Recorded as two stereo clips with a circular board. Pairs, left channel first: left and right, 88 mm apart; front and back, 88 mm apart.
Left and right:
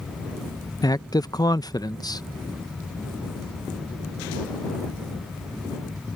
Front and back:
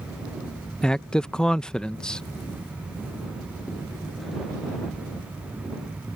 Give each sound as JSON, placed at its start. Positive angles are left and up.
{"t": 0.8, "sound": "a man speaking", "azimuth_deg": 80}